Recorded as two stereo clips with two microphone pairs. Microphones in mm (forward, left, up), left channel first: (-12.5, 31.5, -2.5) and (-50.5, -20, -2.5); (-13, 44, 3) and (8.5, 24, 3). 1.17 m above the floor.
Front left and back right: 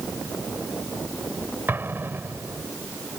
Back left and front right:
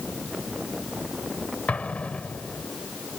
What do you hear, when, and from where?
1.7 s an explosion: 175° left